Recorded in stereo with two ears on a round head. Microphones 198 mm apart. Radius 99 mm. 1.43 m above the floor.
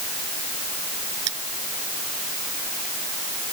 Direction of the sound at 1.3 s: 80° right.